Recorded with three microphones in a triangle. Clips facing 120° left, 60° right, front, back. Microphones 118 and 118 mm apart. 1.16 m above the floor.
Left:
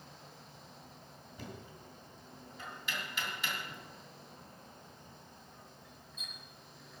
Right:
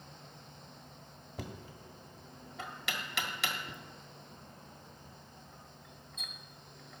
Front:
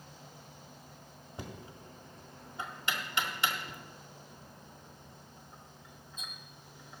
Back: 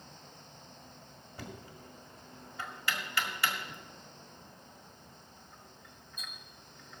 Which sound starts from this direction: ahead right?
Knocking, at 1.4 s.